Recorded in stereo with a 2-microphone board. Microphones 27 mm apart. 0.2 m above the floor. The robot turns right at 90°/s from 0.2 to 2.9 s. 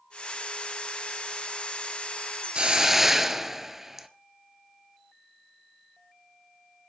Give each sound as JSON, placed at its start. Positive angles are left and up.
{"t": 2.5, "sound": "a hiss", "azimuth_deg": -45, "distance_m": 1.0}